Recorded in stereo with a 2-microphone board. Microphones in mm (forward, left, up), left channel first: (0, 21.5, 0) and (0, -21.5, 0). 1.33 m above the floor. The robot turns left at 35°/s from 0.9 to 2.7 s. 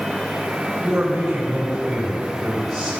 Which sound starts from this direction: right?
A man speaking, at 0.8 s.